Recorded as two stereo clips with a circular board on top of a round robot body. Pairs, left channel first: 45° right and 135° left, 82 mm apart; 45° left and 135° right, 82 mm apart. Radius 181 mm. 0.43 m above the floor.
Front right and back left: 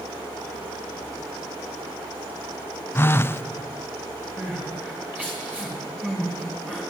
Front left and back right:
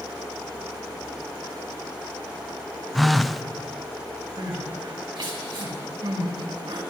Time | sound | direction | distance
3.0 | a phone buzzing | 45° right | 0.5 m
4.4 | crying | 155° right | 4 m